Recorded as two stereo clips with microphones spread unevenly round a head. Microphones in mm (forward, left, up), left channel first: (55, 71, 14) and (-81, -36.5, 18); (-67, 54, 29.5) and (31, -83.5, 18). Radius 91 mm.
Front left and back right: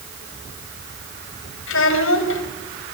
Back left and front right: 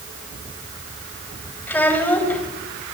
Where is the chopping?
I don't hear chopping.